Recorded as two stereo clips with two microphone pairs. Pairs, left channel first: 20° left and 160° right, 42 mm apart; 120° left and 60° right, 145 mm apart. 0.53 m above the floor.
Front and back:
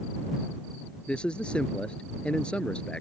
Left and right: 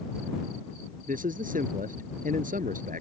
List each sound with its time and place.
1.1 s a man speaking: 45° right